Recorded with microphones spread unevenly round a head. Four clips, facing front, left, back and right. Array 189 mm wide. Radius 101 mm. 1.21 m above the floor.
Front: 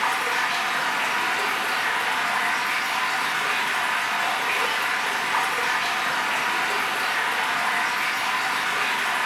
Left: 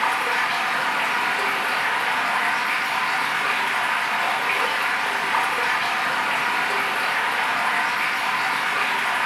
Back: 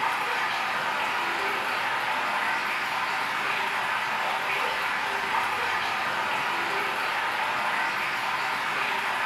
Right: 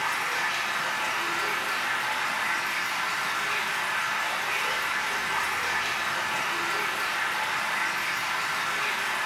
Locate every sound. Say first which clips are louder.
0.0 s running water: left 7 dB, front 3 dB; 60° left, 1.9 m